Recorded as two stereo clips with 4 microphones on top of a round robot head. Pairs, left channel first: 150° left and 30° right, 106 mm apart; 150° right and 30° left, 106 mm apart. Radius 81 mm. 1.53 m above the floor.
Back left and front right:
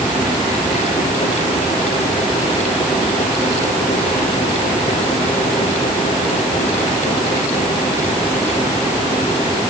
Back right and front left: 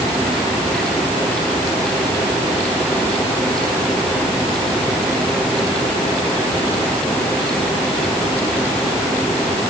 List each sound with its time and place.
Only background noise.